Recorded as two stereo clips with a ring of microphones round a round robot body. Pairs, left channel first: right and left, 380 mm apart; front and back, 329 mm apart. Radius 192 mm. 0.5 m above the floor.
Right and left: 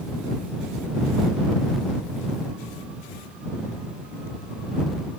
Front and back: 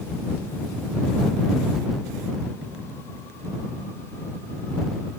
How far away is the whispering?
I don't hear whispering.